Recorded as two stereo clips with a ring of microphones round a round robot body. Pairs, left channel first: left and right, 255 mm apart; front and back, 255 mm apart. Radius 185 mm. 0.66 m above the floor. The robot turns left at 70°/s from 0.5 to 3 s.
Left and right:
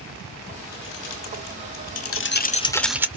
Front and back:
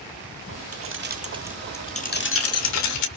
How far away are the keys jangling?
About 1.9 m.